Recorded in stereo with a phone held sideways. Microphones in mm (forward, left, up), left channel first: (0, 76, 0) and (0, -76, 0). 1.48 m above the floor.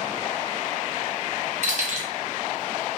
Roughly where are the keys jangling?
Right.